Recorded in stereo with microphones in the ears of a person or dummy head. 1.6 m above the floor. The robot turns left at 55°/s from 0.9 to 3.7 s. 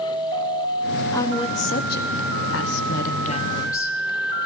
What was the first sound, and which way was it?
A woman speaking, 165° left.